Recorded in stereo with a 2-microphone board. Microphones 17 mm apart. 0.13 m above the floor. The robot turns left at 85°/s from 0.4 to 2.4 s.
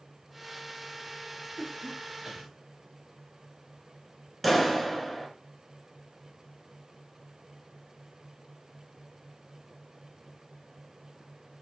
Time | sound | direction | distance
1.6 | a cough | 40° right (ahead or behind) | 3 m
4.4 | a clap | 5° left (ahead or behind) | 1.3 m